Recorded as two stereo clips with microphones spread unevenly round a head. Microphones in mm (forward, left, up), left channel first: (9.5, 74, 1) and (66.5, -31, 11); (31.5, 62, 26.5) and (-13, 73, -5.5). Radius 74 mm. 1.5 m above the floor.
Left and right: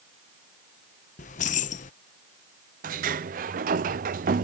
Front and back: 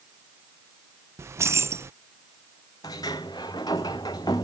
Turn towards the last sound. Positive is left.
turn(degrees=-70)